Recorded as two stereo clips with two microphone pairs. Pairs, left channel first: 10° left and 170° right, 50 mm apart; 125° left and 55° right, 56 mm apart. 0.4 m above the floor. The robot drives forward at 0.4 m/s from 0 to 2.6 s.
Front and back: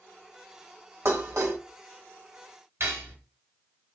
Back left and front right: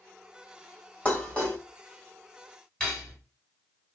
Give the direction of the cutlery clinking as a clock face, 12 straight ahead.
5 o'clock.